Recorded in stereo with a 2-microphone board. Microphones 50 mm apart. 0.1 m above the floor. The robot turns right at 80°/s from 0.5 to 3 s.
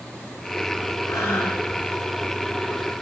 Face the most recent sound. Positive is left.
turn(degrees=-105)